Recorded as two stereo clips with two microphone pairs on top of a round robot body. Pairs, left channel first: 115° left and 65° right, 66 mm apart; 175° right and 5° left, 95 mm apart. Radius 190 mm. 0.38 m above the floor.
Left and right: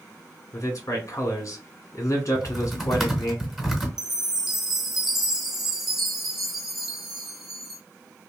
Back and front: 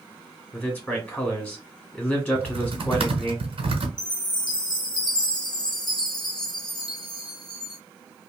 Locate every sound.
0.5 s a man speaking: 110° left, 1.6 m
2.4 s typing on a keyboard: 25° left, 1.0 m
4.0 s a chime: 145° right, 1.0 m